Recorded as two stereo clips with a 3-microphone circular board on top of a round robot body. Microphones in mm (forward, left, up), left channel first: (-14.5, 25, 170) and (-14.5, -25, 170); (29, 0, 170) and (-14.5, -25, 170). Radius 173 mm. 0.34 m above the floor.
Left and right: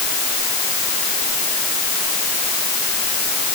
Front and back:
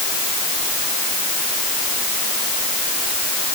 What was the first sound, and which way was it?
Only background noise.